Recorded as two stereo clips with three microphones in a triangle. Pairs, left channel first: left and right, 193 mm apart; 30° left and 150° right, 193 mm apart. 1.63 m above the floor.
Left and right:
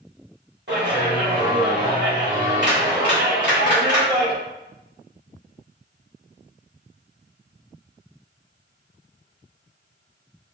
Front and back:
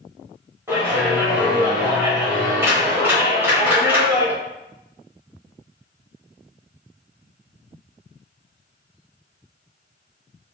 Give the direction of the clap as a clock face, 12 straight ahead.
2 o'clock.